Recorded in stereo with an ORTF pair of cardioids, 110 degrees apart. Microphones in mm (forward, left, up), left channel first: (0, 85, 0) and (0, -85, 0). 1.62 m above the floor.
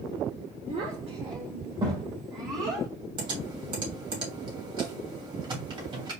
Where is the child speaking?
40° right, 1.3 m; by 2.9 s 20° right, 2 m.